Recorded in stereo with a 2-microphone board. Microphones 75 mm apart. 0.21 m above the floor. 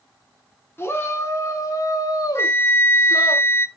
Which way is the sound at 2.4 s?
35° left (ahead or behind).